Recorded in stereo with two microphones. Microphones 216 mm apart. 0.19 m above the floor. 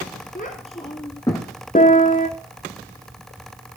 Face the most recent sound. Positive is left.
turn(degrees=40)  # may be behind; listen again after turning